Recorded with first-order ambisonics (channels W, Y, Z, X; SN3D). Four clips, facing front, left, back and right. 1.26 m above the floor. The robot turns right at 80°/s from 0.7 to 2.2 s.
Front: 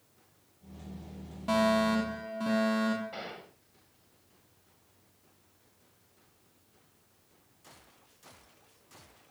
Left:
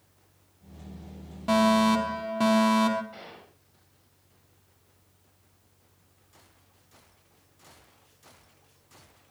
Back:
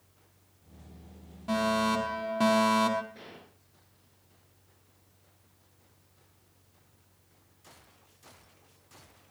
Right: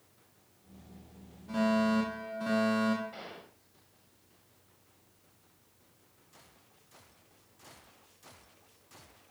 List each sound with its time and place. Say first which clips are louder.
1.5 s a fire alarm: left 7 dB, front 1 dB; 75° left, 5 m; by 3.0 s 130° left, 5 m
3.1 s a gunshot: even, front 7 dB; straight ahead, 5.5 m